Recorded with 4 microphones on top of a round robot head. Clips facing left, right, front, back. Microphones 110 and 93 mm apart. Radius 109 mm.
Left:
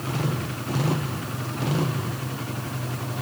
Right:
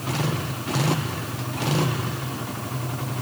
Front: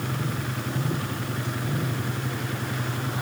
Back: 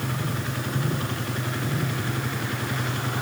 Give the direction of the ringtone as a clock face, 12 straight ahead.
I don't hear a ringtone.